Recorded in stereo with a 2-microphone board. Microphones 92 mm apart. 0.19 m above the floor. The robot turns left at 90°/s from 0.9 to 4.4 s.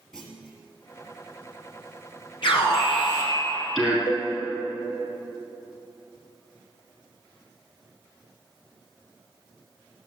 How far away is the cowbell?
About 1.7 m.